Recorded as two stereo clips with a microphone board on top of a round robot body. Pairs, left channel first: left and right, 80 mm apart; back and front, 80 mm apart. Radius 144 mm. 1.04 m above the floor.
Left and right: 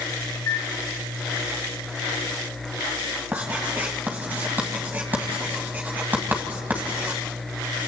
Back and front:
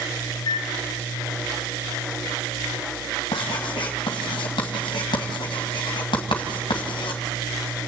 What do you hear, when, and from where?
0.3 s a microwave: 145° left, 1.3 m
3.3 s writing: 160° right, 2.0 m